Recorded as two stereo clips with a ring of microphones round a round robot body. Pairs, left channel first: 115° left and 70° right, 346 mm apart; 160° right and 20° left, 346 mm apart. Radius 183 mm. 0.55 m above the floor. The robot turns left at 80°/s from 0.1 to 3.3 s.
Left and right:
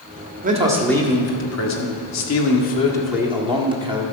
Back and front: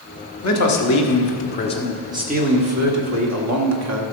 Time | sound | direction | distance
0.4 | a man speaking | 125° right | 1.6 m